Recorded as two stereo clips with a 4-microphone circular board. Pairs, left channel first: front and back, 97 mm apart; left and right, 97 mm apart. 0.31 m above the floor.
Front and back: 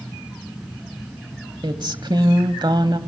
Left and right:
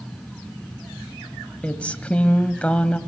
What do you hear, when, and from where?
1.6 s a woman speaking: 165° left, 1.3 m